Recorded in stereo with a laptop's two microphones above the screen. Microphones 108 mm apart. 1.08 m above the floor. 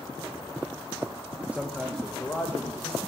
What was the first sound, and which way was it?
A man speaking, 15° right (ahead or behind).